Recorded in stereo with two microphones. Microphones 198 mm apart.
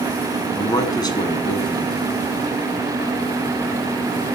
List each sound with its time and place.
0.6 s a man speaking: 20° left (ahead or behind), 1.4 m